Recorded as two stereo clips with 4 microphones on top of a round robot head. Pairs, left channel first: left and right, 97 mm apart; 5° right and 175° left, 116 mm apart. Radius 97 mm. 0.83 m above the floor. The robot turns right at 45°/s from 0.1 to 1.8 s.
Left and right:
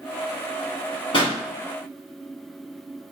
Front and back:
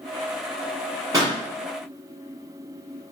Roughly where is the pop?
Behind left.